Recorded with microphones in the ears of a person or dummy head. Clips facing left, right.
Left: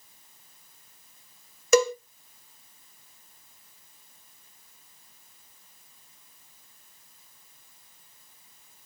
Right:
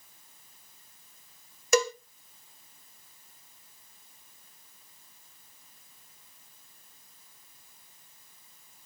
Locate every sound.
1.7 s a cowbell: 85° left, 0.8 m